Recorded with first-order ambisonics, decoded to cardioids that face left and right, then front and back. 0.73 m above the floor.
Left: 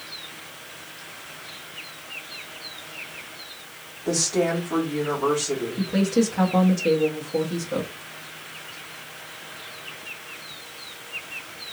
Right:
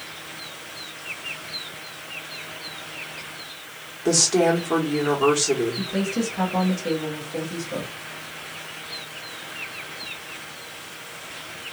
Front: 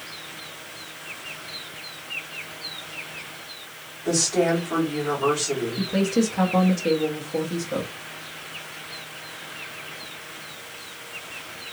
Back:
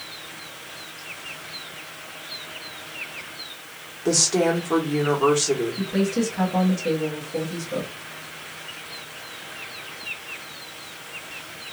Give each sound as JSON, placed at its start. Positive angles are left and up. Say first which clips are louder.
{"t": 4.0, "sound": "a woman speaking", "louder": "right 4 dB, back 1 dB", "azimuth_deg": -120, "distance_m": 1.6}
{"t": 5.8, "sound": "a woman speaking", "louder": "left 3 dB, front 1 dB", "azimuth_deg": 35, "distance_m": 0.9}